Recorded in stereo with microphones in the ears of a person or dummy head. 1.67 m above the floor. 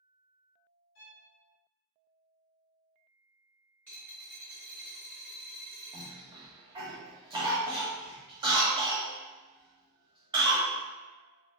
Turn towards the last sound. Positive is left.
turn(degrees=-20)  # may be behind; listen again after turning